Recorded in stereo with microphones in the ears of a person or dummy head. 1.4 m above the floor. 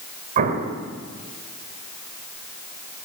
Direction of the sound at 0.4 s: 50° right (ahead or behind).